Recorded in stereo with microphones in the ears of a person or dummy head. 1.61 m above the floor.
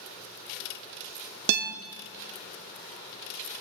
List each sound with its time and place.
1.5 s a guitar: 55° right (ahead or behind), 0.7 m